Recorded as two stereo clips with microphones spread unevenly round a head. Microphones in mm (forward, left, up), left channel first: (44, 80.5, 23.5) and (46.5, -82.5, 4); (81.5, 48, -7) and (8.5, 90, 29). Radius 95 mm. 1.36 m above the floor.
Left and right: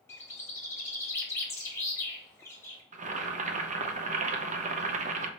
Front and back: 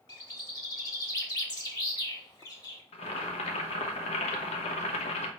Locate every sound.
0.1 s a bird: 25° left, 1.3 m
2.9 s boiling: 45° right, 0.6 m